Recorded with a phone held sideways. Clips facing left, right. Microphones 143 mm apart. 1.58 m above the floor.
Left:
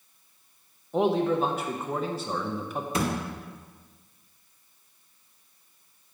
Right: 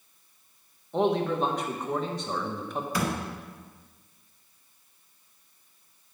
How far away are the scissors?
I don't hear scissors.